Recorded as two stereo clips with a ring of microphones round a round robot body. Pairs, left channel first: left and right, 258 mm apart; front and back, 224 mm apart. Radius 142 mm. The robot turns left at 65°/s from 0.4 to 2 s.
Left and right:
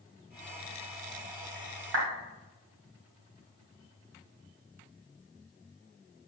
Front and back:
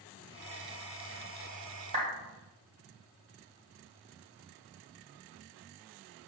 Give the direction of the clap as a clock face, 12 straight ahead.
4 o'clock.